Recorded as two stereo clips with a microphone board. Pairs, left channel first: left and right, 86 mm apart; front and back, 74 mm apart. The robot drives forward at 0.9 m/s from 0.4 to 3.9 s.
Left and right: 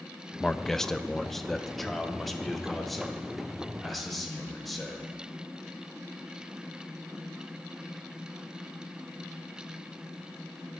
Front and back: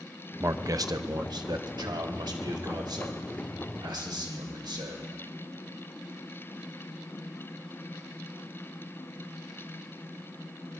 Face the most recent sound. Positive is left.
turn(degrees=180)